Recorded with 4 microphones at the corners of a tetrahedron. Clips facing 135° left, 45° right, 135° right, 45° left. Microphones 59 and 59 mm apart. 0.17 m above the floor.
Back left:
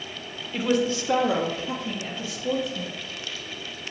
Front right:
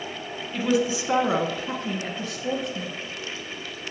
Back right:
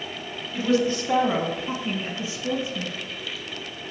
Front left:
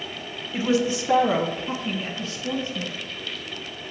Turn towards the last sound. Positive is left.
turn(degrees=-60)